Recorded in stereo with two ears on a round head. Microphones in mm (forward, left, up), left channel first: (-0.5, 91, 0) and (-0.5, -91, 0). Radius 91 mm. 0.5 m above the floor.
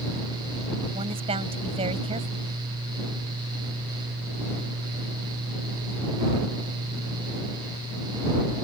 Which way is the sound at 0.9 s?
30° right (ahead or behind).